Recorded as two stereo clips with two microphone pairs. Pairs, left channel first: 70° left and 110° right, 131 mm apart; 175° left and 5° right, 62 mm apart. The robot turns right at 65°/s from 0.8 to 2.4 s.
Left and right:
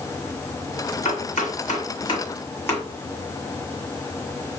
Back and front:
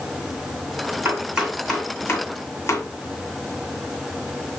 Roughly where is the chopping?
Ahead left.